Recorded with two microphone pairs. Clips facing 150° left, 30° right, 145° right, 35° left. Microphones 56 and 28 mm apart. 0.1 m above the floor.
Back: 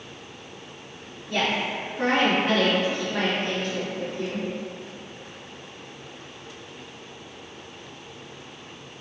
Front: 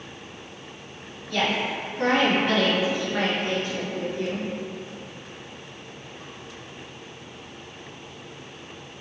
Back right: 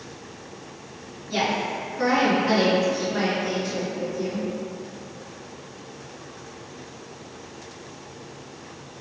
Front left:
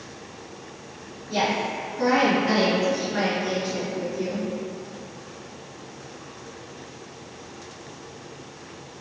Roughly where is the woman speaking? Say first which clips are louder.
Even, even; behind.